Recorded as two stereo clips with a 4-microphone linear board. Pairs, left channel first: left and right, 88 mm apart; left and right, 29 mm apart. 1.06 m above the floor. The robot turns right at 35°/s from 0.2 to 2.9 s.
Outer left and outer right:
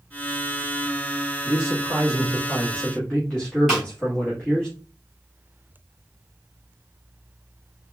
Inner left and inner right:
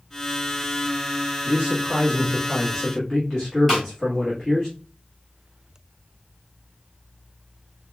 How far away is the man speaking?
About 1.8 m.